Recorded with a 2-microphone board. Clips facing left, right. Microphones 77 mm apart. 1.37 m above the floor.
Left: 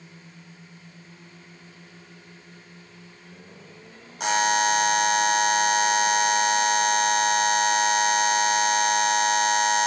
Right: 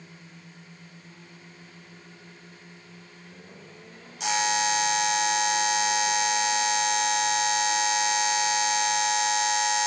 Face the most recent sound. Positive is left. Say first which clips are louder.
# left 4 dB
turn(degrees=45)  # may be behind; listen again after turning